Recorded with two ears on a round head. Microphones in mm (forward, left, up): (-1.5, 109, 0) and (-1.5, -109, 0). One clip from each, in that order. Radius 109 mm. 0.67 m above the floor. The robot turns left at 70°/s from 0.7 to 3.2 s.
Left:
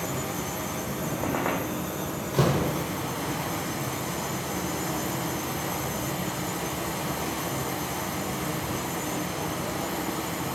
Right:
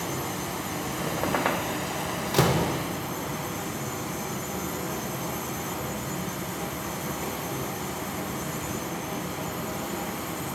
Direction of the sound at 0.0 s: 15° right.